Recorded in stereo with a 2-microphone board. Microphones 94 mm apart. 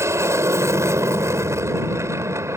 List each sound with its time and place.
0.0 s an aircraft: 30° right (ahead or behind)